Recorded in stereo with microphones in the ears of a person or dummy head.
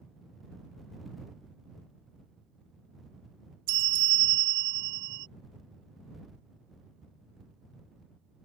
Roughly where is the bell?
Right.